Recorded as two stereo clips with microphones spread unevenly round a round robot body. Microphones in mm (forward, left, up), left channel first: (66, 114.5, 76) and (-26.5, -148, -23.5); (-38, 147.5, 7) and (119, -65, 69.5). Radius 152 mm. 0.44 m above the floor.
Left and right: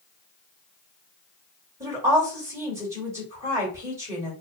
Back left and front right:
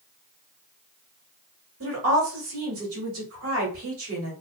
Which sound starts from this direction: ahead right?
A woman speaking, at 1.8 s.